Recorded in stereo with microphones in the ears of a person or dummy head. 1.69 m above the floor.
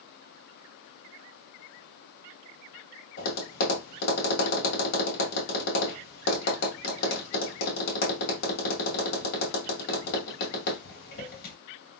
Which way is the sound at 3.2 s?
60° left (ahead or behind).